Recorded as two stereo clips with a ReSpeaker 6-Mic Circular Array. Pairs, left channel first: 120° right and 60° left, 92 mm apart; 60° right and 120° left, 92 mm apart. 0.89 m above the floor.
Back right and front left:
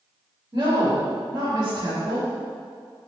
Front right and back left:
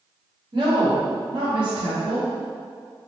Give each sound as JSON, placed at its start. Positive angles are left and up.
{"t": 0.5, "sound": "a woman speaking", "azimuth_deg": 115, "distance_m": 3.0}